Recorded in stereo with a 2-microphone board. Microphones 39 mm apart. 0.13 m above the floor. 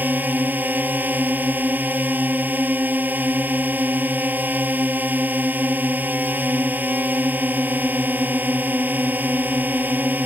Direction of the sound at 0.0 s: 50° right (ahead or behind).